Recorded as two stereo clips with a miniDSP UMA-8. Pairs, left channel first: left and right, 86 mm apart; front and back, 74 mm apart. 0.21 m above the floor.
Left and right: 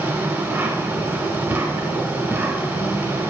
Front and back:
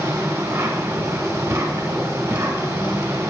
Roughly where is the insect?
Behind right.